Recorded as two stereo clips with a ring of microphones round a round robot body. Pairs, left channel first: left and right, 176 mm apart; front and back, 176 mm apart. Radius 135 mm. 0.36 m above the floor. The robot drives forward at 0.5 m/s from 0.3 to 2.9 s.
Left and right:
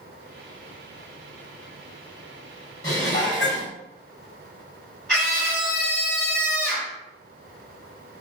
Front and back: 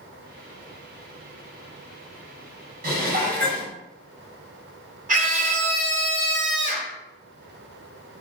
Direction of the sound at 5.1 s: 170° left.